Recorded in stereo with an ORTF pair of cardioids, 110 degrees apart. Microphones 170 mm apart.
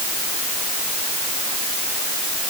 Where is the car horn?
No car horn in this recording.